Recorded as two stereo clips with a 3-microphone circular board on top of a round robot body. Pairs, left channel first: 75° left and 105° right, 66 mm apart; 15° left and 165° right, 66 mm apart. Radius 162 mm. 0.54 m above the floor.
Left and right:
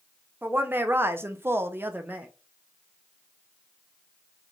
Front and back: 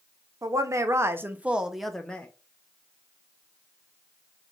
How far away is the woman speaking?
About 0.9 m.